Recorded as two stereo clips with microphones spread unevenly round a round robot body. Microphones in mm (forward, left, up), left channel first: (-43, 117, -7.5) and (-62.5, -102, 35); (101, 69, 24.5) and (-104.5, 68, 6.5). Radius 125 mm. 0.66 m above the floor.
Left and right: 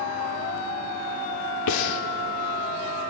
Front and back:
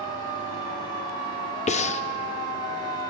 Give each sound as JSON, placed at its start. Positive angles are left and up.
{"t": 1.7, "sound": "breathing", "azimuth_deg": 60, "distance_m": 0.5}